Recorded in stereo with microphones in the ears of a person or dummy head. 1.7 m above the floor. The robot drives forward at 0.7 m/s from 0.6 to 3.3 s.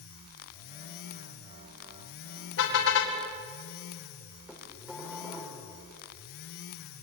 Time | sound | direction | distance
2.6 | a car horn | 75° left (ahead or behind) | 4 m
4.5 | dishes clattering | 10° right (ahead or behind) | 4.5 m